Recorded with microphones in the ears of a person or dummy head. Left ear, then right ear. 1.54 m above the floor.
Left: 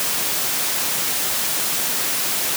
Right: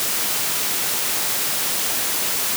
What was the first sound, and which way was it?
Only background noise.